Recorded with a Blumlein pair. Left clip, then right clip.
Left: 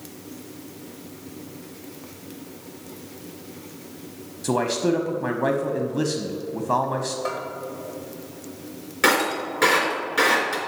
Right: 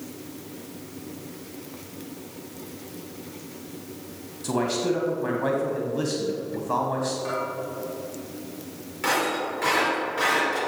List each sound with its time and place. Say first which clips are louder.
4.4 s a man speaking: left 3 dB; 20° left, 1.0 m
7.2 s a bell: even; 70° left, 2.5 m
9.0 s breaking glass: left 4 dB; 60° left, 3 m